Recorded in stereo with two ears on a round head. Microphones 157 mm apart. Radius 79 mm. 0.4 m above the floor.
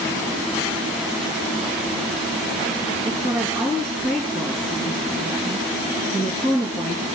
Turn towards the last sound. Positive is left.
turn(degrees=-35)  # may be behind; listen again after turning